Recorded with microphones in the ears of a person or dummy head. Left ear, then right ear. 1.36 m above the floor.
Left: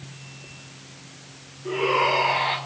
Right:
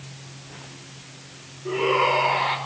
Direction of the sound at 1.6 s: 5° left (ahead or behind).